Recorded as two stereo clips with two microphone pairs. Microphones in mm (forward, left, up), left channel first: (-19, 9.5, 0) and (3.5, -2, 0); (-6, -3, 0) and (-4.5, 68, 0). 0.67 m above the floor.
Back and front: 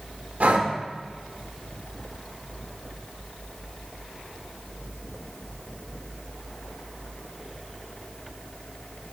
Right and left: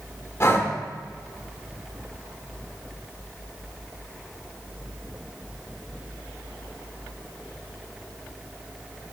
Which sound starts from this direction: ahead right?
Breathing, at 0.4 s.